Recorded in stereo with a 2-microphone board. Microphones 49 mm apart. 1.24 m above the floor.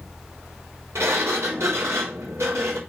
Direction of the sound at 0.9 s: 65° right (ahead or behind).